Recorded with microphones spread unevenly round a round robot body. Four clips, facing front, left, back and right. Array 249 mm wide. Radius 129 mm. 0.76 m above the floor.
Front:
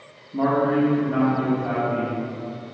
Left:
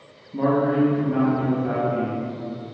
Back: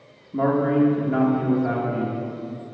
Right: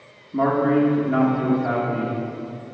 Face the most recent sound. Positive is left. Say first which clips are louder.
# right 1 dB, even
turn(degrees=-145)